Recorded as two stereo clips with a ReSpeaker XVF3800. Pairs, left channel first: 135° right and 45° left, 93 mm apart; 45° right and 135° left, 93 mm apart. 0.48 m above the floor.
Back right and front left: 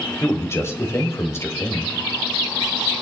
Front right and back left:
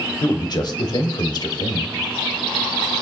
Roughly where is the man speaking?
Right.